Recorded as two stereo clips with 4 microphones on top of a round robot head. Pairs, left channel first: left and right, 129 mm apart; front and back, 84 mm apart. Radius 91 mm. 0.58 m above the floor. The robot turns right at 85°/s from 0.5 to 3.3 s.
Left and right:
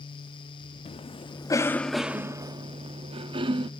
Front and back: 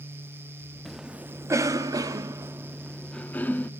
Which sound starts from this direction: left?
A cough, at 0.8 s.